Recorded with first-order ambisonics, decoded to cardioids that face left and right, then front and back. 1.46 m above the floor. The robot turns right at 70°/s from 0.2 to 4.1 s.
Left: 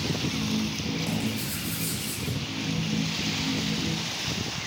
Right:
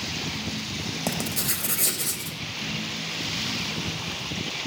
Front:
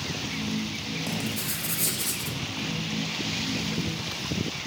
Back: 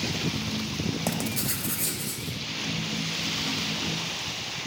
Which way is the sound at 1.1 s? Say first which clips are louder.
Right 3 dB, back 1 dB; 125° right.